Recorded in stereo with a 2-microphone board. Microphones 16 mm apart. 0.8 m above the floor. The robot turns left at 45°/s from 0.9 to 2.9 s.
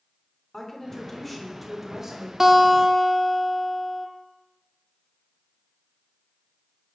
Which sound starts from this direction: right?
A guitar, at 2.4 s.